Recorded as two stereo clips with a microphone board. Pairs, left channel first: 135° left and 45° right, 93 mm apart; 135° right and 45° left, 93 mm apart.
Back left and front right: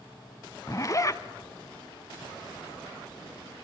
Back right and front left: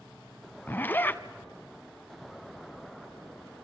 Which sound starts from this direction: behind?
A zipper, at 0.7 s.